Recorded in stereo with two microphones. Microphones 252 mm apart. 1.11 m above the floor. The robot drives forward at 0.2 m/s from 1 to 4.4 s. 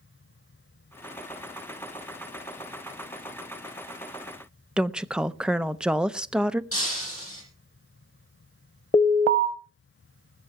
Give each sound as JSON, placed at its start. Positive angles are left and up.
{"t": 4.8, "sound": "a woman speaking", "side_deg": -5, "distance_m": 0.6}
{"t": 6.7, "sound": "breaking glass", "side_deg": 55, "distance_m": 6.5}
{"t": 8.9, "sound": "an alarm", "side_deg": 25, "distance_m": 0.9}